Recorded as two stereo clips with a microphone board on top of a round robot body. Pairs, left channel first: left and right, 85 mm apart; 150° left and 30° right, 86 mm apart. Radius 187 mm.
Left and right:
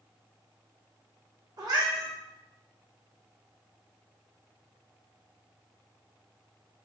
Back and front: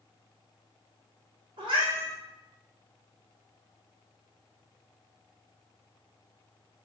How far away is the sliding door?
I don't hear a sliding door.